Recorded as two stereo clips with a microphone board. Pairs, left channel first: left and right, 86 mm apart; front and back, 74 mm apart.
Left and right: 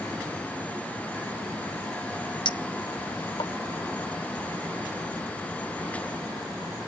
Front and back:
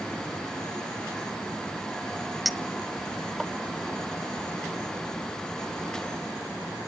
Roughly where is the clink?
Left.